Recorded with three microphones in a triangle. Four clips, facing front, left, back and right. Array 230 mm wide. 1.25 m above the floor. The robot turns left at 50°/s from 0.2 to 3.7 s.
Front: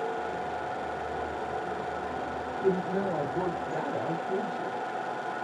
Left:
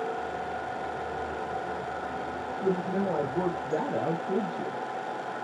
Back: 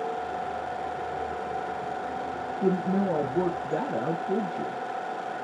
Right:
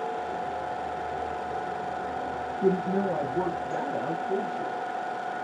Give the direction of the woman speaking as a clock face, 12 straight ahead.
5 o'clock.